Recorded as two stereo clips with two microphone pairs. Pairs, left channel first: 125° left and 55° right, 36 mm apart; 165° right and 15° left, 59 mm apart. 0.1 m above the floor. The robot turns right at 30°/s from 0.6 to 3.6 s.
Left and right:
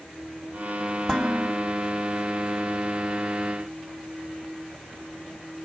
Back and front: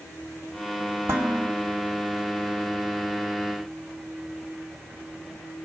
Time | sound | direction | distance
1.1 | dishes clattering | 50° left | 2.5 m